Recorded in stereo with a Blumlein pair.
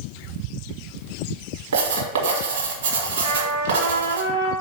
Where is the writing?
55° right, 1.6 m.